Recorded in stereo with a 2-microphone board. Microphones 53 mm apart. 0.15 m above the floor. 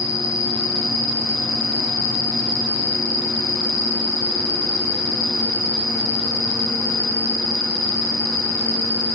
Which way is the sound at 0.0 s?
75° left (ahead or behind).